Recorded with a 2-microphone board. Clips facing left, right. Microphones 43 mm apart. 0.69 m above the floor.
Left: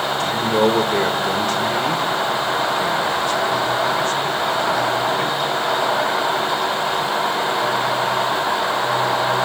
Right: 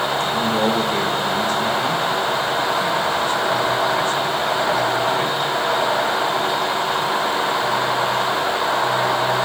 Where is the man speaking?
65° left (ahead or behind), 2.5 m.